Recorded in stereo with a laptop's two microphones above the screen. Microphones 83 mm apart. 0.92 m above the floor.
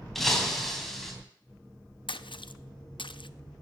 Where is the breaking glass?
5° left (ahead or behind), 3 m.